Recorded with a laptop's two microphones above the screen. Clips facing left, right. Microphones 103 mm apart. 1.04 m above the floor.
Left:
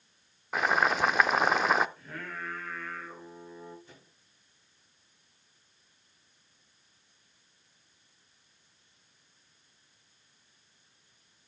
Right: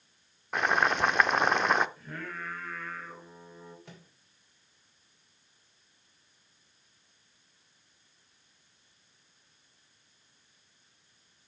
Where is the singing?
Centre (ahead or behind), 3.5 m.